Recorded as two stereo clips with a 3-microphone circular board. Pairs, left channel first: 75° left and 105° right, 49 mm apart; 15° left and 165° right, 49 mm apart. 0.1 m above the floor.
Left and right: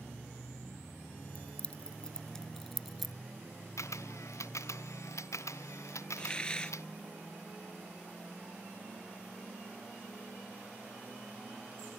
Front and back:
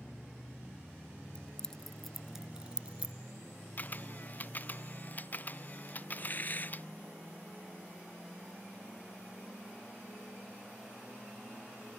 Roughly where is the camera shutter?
Left.